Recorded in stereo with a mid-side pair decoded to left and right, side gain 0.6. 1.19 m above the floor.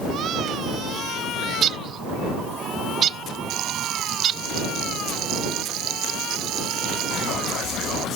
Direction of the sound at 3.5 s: 65° right.